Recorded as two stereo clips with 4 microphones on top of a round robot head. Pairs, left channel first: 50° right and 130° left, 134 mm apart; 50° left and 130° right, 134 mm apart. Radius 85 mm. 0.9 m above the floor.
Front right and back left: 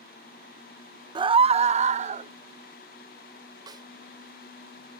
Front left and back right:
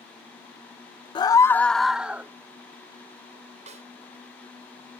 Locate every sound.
1.1 s a scream: 90° left; by 2.3 s 155° left
3.7 s a snare drum: 170° right